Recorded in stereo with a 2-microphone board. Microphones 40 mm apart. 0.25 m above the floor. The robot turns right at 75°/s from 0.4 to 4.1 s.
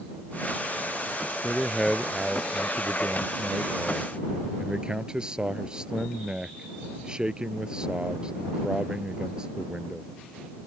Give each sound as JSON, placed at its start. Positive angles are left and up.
{"t": 1.4, "sound": "a man speaking", "azimuth_deg": 140}